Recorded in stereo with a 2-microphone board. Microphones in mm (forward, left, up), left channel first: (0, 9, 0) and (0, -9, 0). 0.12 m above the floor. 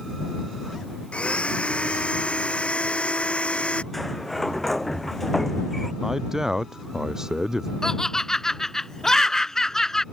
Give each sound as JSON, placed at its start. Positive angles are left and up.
{"t": 1.1, "sound": "a blender", "side_deg": 75}
{"t": 3.9, "sound": "a sliding door", "side_deg": 10}
{"t": 6.0, "sound": "a man speaking", "side_deg": -30}
{"t": 7.8, "sound": "laughter", "side_deg": 25}